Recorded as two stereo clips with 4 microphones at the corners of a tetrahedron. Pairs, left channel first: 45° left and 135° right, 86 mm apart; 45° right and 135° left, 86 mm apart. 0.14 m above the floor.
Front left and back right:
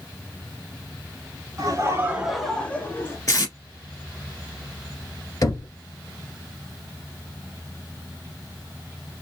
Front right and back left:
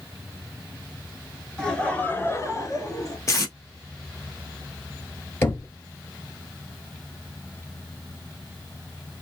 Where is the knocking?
10° left, 1.3 m.